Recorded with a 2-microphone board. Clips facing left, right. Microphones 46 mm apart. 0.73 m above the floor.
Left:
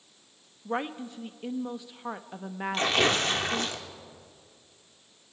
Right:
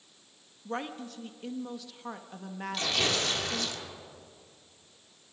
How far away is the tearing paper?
About 1.7 m.